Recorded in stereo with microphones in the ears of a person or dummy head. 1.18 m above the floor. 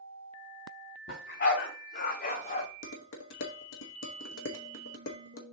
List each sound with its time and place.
1.1 s a dog barking: 55° left (ahead or behind), 1.8 m; by 2.7 s 35° left (ahead or behind), 1.0 m
2.8 s dishes clattering: 65° left (ahead or behind), 0.9 m